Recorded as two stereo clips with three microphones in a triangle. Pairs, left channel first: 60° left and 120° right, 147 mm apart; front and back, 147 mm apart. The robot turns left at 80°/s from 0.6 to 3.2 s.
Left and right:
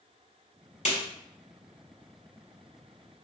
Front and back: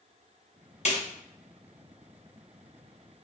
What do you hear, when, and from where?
0.8 s a snare drum: 35° left, 2.5 m; by 1.0 s 20° left, 2.5 m